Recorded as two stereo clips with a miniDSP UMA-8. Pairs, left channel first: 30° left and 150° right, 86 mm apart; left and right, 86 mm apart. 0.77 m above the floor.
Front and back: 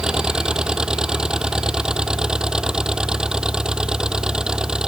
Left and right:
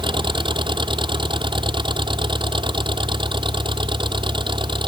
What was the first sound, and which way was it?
An engine running, 70° right.